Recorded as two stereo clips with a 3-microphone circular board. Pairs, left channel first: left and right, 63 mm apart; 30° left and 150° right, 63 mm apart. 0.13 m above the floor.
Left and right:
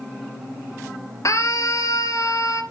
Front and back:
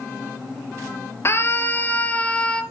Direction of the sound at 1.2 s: 75° left.